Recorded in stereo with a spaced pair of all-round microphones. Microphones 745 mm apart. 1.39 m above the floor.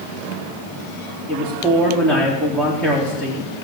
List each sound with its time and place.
1.3 s a man speaking: centre (ahead or behind), 3.5 m